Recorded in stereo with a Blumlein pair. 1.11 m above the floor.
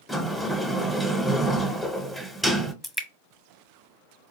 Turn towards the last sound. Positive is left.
turn(degrees=5)